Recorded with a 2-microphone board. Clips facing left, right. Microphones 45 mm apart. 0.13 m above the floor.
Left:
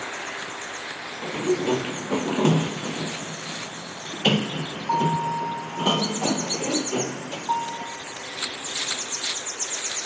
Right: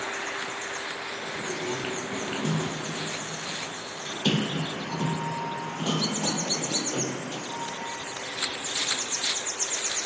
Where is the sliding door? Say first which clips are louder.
Left 10 dB; 65° left (ahead or behind), 1.9 m.